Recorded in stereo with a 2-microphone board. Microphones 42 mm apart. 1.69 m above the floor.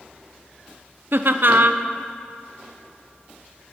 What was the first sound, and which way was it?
Laughter, 60° right (ahead or behind).